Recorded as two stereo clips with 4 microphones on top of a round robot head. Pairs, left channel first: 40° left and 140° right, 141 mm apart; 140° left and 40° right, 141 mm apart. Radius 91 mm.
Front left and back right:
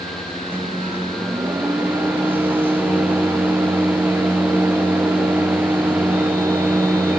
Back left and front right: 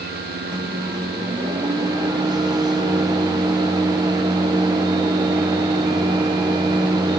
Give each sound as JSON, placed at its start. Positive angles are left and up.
{"t": 0.5, "sound": "a microwave", "azimuth_deg": -70, "distance_m": 0.7}